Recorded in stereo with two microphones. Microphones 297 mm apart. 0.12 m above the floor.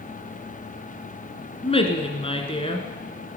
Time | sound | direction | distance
1.6 | a woman speaking | 20° left (ahead or behind) | 1.8 m